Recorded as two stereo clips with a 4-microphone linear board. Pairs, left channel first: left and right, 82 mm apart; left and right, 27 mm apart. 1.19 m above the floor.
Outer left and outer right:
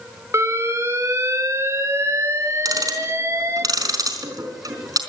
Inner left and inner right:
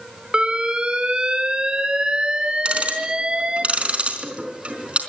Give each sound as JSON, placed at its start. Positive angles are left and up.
{"t": 0.3, "sound": "an alarm", "side_deg": -35, "distance_m": 3.0}
{"t": 2.6, "sound": "ticking", "side_deg": -45, "distance_m": 4.0}